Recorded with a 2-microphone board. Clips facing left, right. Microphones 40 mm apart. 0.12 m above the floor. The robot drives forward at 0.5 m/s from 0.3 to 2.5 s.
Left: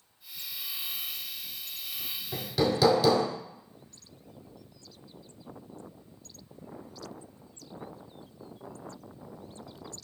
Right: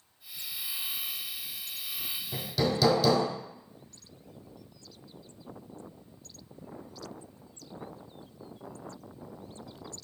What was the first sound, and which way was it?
Hammering, 15° left (ahead or behind).